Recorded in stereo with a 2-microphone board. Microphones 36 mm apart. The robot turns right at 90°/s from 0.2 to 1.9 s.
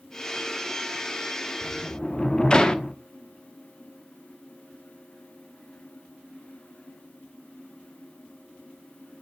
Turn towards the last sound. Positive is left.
turn(degrees=20)  # may be behind; listen again after turning